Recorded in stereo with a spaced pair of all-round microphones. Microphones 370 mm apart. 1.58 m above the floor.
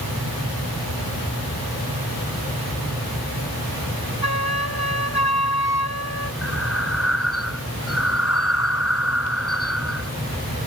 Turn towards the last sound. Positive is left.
turn(degrees=40)  # may be behind; listen again after turning